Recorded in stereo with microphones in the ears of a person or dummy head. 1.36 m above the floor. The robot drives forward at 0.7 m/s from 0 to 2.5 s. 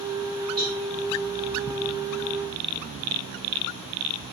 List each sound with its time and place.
0.6 s a cowbell: centre (ahead or behind), 1.0 m